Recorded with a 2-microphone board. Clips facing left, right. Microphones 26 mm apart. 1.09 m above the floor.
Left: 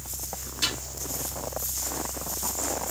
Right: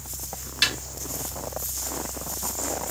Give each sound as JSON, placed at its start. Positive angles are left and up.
{"t": 0.6, "sound": "a snare drum", "side_deg": -70, "distance_m": 3.0}